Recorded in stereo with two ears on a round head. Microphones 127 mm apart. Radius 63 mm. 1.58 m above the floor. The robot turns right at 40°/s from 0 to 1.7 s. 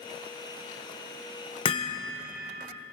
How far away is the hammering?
About 0.9 m.